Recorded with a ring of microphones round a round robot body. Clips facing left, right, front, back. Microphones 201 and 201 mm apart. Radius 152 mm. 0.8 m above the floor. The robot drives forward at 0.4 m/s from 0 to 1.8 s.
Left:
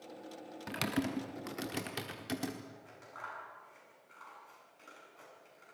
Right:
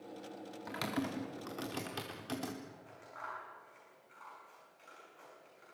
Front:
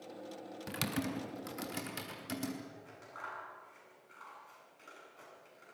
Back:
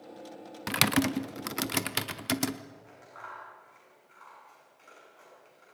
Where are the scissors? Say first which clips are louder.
Left 1 dB, back 1 dB; 45° left, 8.5 m.